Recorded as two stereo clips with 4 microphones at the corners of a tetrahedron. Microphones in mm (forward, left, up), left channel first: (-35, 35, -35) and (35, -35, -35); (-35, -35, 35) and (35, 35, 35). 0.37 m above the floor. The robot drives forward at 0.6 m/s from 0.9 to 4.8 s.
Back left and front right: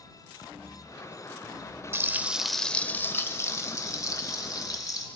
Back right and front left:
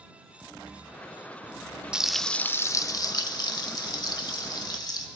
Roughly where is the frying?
Ahead right.